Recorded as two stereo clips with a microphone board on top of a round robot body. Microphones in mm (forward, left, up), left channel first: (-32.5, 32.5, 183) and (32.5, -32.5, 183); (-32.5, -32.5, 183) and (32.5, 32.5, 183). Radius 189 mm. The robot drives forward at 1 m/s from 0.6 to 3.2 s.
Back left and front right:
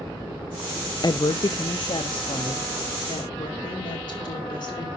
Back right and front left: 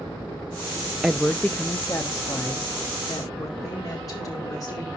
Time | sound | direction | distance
1.0 | a woman speaking | 125° left | 0.7 m